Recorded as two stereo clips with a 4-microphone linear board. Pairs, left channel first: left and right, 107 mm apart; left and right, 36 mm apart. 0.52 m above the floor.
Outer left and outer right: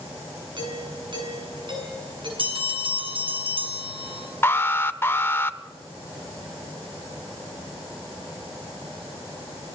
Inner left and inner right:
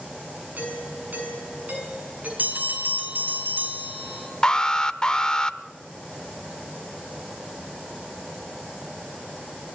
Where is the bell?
55° right (ahead or behind), 4.5 m.